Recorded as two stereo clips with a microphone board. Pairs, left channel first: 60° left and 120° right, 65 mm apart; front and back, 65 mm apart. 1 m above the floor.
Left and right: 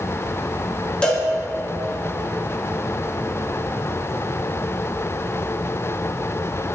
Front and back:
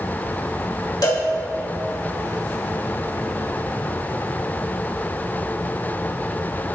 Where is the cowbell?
15° right, 1.7 m.